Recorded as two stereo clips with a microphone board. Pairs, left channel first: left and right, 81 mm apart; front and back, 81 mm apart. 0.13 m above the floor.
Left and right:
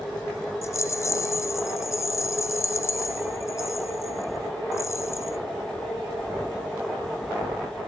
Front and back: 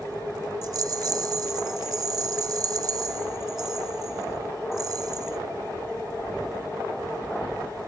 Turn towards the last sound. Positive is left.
turn(degrees=140)